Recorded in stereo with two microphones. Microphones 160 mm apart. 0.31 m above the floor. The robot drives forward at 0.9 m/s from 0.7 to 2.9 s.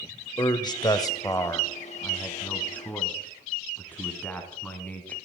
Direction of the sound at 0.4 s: 25° left (ahead or behind).